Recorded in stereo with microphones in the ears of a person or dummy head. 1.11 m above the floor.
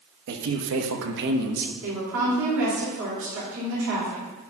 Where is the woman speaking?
75° right (ahead or behind), 3.5 m.